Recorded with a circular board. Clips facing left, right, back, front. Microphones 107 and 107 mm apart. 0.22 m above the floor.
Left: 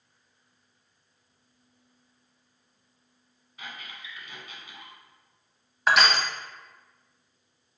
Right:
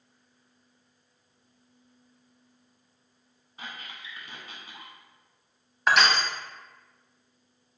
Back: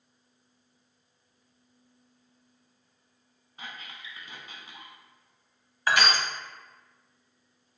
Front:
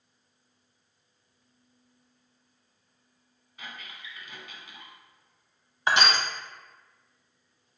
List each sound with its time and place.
3.6 s a squeak: 130° right, 0.9 m
5.9 s crushing: 5° left, 0.7 m